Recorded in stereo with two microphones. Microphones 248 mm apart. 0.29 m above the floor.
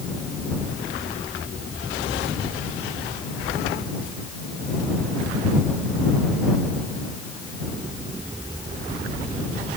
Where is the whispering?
No whispering in this recording.